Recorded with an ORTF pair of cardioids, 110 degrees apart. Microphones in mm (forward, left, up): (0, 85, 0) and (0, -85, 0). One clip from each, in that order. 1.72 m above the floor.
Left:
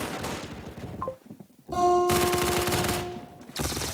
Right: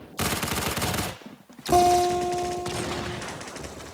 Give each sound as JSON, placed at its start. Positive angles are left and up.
{"t": 1.7, "sound": "a guitar", "azimuth_deg": -70, "distance_m": 4.0}